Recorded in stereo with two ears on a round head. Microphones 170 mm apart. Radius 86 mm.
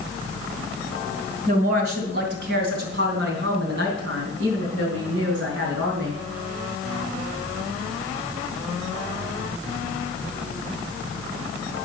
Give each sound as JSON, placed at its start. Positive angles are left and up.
{"t": 1.5, "sound": "a woman speaking", "side_deg": -55, "distance_m": 2.0}